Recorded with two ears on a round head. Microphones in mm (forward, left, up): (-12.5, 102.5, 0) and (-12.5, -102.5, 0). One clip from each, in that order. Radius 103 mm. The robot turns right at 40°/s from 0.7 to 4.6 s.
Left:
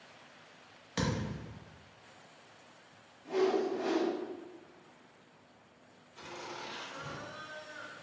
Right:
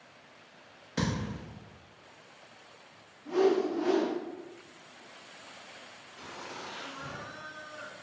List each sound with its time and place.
1.0 s a thud: 25° left (ahead or behind), 0.7 m; by 1.6 s 30° left (ahead or behind), 0.7 m
3.2 s a whoosh: 55° left, 1.5 m; by 4.1 s 90° left, 1.5 m
6.2 s laughter: 45° left (ahead or behind), 0.9 m